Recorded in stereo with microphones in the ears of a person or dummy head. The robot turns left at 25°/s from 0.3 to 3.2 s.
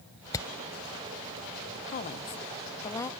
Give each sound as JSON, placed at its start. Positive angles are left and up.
{"t": 0.3, "sound": "hammering", "side_deg": 20}
{"t": 1.9, "sound": "a woman speaking", "azimuth_deg": 45}